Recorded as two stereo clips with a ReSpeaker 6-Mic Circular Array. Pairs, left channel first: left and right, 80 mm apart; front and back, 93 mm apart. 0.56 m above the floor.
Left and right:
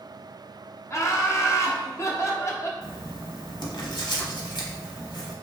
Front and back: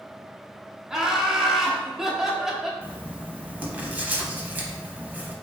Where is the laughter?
95° left, 0.8 m.